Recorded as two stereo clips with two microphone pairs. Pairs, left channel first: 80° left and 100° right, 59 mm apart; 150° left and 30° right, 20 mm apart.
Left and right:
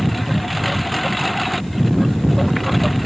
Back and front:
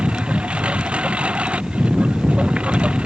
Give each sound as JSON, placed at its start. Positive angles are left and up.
{"t": 0.0, "sound": "a lawn mower", "azimuth_deg": -10}